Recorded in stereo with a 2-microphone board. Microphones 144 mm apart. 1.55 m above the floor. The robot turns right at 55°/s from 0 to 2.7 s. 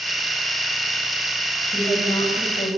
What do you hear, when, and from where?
1.6 s a woman speaking: straight ahead, 9 m; by 2.7 s 60° left, 9 m